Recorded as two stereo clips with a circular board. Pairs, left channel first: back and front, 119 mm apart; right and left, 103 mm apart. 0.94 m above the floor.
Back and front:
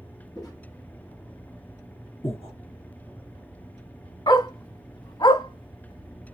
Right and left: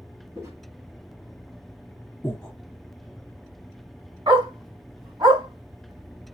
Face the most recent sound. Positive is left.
turn(degrees=135)